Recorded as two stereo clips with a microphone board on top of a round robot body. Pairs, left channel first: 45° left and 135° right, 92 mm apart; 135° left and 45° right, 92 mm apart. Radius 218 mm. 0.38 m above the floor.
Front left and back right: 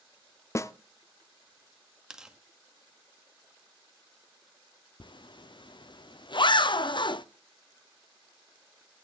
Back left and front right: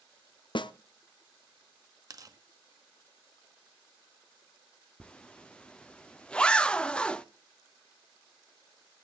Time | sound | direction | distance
0.6 | a snare drum | 105° left | 0.6 m
2.1 | tearing paper | 55° right | 1.6 m
5.0 | a zipper | 60° left | 0.8 m